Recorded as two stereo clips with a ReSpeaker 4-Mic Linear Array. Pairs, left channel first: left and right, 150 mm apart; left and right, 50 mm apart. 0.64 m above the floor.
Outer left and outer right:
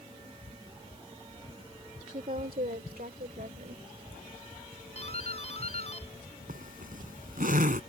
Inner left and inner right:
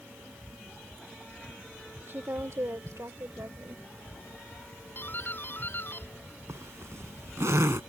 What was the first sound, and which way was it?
A woman speaking, 50° right (ahead or behind).